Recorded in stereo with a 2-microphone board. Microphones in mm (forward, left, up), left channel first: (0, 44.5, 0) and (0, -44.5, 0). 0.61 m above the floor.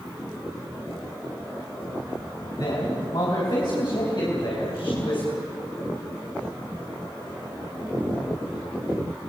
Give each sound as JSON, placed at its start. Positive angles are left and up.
{"t": 2.6, "sound": "a man speaking", "side_deg": 50, "distance_m": 5.0}